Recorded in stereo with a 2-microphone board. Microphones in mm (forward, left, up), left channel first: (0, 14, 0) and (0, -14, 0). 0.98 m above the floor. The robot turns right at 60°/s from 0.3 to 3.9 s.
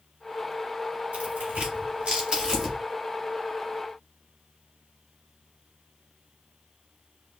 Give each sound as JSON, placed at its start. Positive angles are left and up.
{"t": 1.1, "sound": "tearing paper", "side_deg": -65, "distance_m": 1.6}